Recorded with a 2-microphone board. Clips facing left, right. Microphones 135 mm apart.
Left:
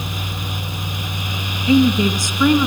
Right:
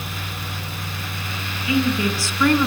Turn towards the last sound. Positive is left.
turn(degrees=5)  # may be behind; listen again after turning